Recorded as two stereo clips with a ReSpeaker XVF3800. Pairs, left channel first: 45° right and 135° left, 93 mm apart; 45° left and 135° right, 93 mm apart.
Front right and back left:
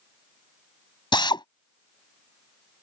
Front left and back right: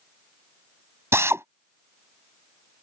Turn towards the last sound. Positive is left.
turn(degrees=-75)